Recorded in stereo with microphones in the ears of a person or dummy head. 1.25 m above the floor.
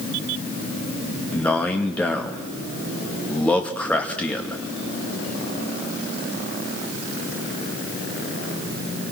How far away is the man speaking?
About 2 m.